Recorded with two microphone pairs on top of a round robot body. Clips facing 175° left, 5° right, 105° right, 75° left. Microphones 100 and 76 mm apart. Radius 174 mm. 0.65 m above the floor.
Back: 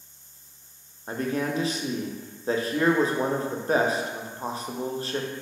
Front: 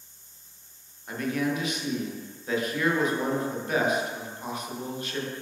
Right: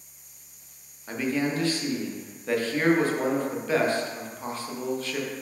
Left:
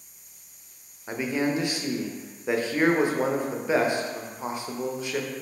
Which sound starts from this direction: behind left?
A man speaking, at 1.1 s.